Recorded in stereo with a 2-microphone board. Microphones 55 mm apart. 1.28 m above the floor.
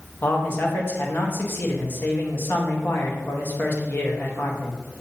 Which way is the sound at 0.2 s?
40° left (ahead or behind).